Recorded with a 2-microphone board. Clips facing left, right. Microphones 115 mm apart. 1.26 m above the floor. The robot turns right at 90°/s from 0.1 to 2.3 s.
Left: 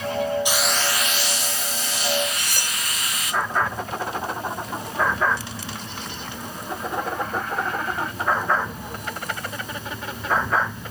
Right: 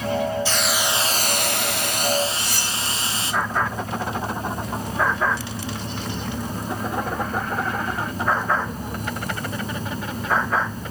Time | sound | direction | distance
0.5 | a hiss | 160° left | 0.7 m
2.3 | cutlery clinking | 60° left (ahead or behind) | 3.5 m